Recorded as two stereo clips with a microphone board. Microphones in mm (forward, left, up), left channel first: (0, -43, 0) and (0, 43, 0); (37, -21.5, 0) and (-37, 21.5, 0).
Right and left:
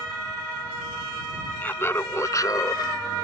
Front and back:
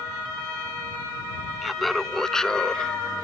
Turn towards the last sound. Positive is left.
turn(degrees=-105)